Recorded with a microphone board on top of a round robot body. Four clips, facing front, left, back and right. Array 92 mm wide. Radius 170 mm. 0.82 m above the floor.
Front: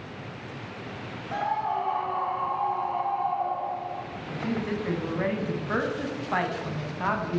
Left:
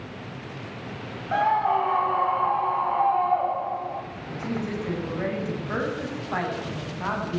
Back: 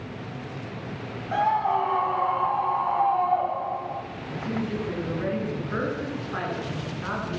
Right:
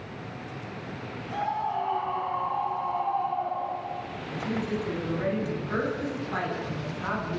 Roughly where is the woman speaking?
Ahead left.